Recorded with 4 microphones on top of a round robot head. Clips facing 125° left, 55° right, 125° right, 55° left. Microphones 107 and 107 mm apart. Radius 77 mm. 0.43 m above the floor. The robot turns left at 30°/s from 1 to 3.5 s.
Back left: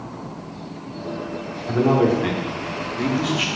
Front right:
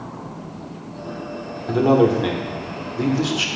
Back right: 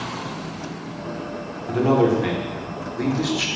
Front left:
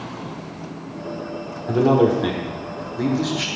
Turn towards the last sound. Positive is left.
turn(degrees=-40)